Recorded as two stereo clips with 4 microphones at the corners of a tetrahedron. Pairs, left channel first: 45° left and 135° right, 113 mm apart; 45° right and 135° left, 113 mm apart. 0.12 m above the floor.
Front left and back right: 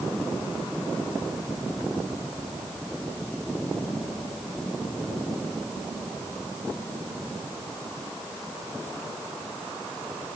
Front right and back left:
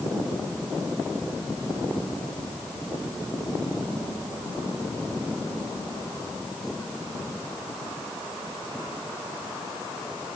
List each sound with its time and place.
Only background noise.